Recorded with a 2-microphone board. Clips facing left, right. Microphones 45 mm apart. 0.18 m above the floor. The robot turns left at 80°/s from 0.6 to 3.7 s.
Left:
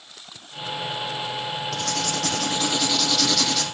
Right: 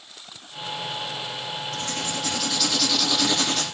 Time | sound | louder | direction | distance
1.7 | writing | left 3 dB | 105° left | 3.5 m